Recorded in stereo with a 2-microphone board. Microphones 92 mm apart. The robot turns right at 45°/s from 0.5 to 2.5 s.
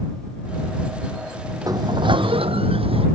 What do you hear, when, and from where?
1.7 s a sliding door: 140° right; by 3.1 s 100° right